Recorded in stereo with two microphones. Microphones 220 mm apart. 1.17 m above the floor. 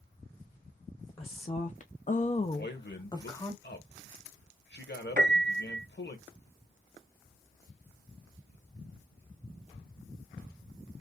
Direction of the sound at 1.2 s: 25° left (ahead or behind).